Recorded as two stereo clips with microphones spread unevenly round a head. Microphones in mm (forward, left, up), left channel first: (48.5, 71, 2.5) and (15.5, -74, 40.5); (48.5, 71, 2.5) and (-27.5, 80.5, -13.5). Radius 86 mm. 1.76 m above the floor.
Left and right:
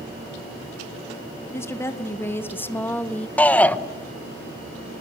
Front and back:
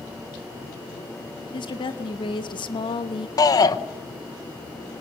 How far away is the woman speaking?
About 2.5 m.